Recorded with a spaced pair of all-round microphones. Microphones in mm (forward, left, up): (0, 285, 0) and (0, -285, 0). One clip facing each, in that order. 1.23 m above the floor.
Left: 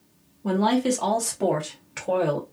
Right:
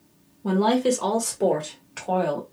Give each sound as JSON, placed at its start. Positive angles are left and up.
{"t": 0.4, "sound": "a woman speaking", "side_deg": -5, "distance_m": 1.1}